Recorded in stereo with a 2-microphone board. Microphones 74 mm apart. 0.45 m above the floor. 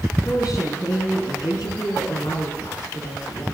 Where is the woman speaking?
55° left (ahead or behind), 5.5 m; by 3.5 s 80° left, 7.5 m.